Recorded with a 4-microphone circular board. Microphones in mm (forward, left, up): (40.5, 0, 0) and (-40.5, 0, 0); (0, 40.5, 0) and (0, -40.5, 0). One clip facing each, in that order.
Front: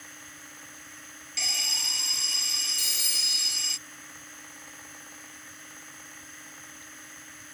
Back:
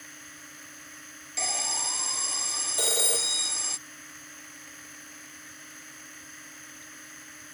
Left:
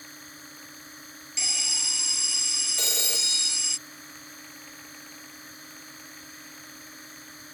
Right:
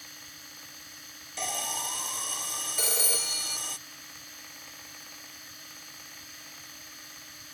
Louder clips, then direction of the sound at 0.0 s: Even, left 4 dB; 90° left.